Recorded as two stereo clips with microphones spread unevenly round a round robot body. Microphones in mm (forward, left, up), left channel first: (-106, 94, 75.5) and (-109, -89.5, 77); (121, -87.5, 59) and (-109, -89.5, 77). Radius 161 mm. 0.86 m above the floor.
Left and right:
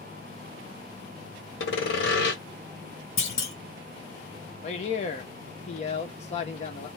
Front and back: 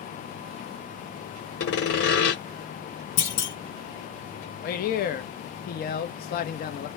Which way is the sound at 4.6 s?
40° left.